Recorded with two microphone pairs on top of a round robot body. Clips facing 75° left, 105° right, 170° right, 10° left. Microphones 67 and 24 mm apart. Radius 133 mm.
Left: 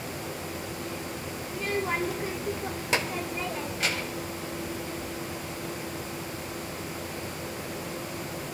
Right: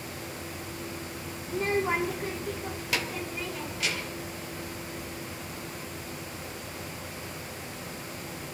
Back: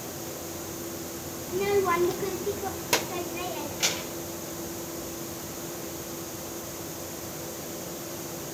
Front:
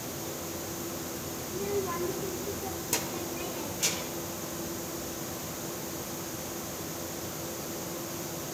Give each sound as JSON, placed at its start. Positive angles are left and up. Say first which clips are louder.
{"t": 1.5, "sound": "a child speaking", "louder": "right 3 dB, back 8 dB", "azimuth_deg": -145, "distance_m": 0.5}